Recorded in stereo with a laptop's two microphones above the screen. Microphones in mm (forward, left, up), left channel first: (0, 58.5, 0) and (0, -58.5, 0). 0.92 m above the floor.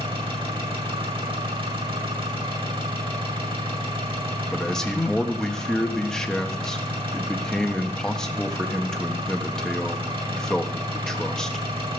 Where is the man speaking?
5° left (ahead or behind), 1.3 m.